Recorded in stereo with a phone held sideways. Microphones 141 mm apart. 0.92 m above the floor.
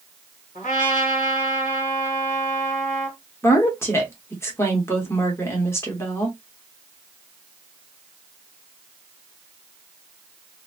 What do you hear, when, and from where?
0.6 s a trumpet: 60° left (ahead or behind), 1.8 m
3.4 s a woman speaking: 20° left (ahead or behind), 1.1 m